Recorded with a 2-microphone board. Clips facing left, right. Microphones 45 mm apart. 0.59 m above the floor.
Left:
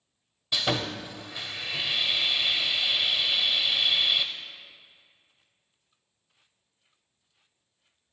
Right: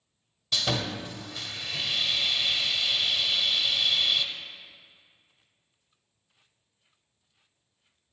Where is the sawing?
20° left (ahead or behind), 0.6 m.